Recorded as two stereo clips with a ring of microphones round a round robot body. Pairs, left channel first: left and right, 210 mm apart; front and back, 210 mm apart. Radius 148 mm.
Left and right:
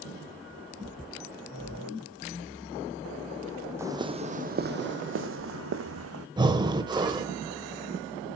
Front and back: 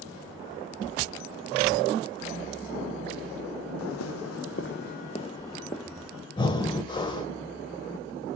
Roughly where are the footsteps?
Ahead.